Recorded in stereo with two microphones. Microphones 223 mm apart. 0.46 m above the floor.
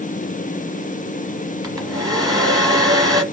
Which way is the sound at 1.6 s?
15° right (ahead or behind).